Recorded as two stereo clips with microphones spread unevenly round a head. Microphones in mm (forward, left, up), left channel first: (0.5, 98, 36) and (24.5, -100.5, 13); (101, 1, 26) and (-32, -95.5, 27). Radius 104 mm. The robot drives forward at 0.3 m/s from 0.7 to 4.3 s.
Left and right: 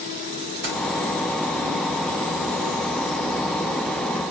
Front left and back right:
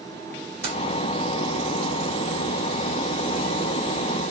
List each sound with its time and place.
0.6 s keys jangling: 120° right, 3 m; by 0.8 s 125° right, 3 m